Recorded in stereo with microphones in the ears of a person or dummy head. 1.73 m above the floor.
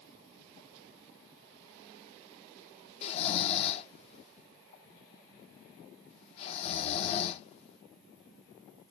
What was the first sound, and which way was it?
An insect, 75° left (ahead or behind).